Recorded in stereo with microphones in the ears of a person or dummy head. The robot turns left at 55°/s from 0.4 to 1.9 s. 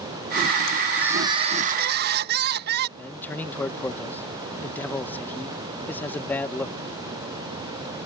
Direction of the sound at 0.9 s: Straight ahead.